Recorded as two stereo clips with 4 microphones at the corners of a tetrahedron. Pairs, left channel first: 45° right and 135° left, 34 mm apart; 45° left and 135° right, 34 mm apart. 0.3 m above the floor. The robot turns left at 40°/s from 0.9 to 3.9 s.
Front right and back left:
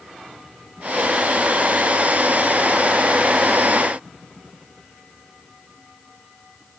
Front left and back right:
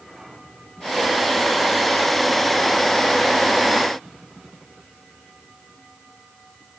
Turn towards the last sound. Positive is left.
No sound to turn to.